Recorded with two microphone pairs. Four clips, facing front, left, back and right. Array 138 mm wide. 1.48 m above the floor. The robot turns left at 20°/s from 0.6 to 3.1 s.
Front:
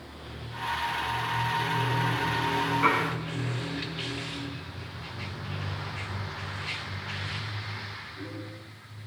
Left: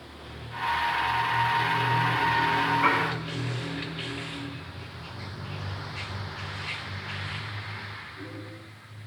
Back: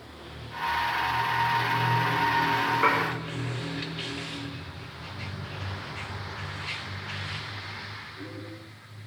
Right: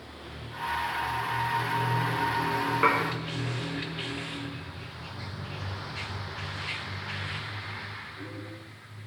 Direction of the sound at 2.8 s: 105° right.